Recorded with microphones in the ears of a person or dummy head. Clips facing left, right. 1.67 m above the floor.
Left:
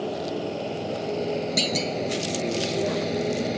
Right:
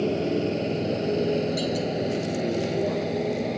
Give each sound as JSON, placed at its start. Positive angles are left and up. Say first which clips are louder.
{"t": 0.0, "sound": "a motorcycle", "louder": "right 4 dB", "side_deg": -35}
{"t": 1.6, "sound": "a clunk", "louder": "right 1 dB", "side_deg": 35}